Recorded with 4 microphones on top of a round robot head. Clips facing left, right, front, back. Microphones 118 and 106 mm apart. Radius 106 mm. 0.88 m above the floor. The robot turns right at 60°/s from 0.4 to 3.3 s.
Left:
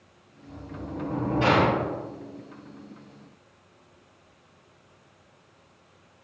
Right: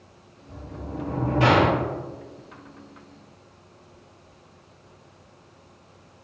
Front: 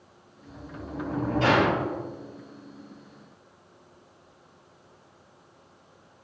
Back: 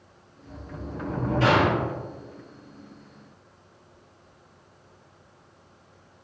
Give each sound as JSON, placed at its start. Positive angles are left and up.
{"t": 0.5, "sound": "a sliding door", "azimuth_deg": -175, "distance_m": 0.9}